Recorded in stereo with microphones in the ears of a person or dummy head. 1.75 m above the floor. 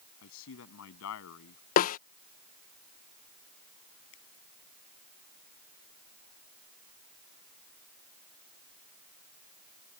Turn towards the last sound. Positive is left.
turn(degrees=75)  # may be behind; listen again after turning